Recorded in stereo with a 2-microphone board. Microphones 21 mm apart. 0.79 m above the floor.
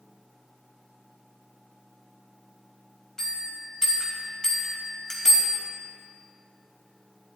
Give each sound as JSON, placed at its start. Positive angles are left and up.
{"t": 3.2, "sound": "a bell", "side_deg": 25, "distance_m": 3.0}